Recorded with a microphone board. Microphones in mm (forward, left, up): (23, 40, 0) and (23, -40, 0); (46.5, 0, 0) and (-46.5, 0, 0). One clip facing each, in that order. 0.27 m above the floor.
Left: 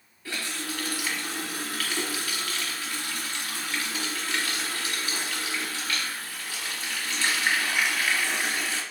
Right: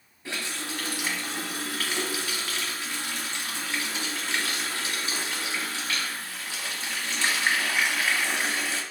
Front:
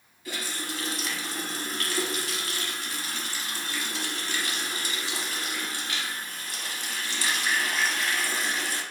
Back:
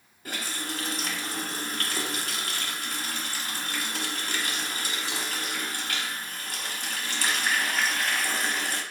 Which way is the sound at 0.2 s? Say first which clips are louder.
Even, even; 150° right.